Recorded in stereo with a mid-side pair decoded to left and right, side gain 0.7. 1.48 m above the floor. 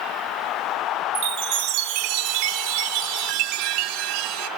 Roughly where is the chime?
Ahead right.